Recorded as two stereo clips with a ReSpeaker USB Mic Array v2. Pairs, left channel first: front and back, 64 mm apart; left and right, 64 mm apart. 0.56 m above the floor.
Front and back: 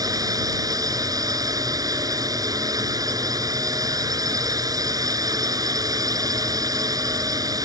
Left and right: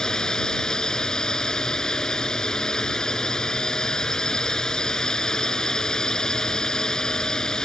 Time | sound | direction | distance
0.0 | a drone | 170° left | ?